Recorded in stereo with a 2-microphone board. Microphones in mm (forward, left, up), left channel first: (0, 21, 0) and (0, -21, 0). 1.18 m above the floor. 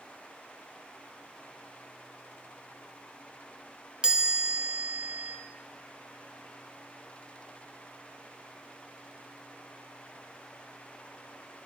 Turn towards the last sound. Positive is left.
turn(degrees=-20)  # may be behind; listen again after turning